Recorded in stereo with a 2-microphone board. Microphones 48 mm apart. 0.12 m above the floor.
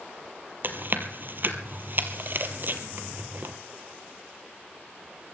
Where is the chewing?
50° right (ahead or behind), 1.2 m.